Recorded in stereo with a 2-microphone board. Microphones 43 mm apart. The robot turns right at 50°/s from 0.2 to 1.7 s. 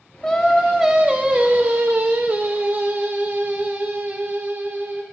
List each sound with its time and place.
0.2 s singing: 160° left, 1.2 m; by 5.0 s 125° right, 1.2 m